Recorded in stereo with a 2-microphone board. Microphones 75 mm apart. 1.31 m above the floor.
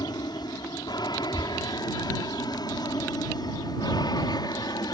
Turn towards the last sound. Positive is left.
turn(degrees=65)  # may be behind; listen again after turning